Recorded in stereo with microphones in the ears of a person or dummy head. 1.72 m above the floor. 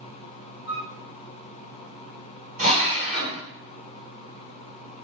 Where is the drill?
35° right (ahead or behind), 1.3 m.